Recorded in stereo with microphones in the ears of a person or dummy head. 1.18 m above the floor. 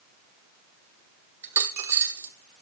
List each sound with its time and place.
1.4 s a dropped coin: 15° right (ahead or behind), 0.9 m